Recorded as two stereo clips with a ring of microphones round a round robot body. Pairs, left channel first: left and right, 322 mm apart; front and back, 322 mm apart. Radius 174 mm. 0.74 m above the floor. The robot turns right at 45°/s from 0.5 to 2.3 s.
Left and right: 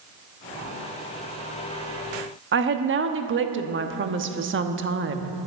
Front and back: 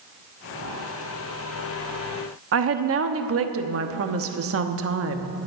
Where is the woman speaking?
140° right, 1.1 m.